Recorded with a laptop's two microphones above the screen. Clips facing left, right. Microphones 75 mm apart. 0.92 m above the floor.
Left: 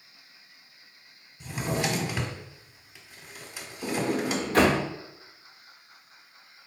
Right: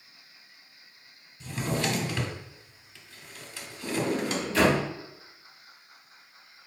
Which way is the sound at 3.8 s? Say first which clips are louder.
Left 1 dB; 50° left (ahead or behind).